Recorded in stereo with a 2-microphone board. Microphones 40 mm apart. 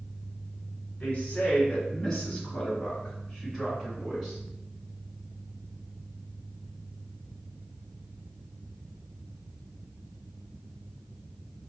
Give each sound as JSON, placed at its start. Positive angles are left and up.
{"t": 1.0, "sound": "a woman speaking", "side_deg": 30, "distance_m": 1.7}